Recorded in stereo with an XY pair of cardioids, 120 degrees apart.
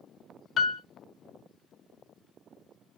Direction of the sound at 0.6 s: 45° left.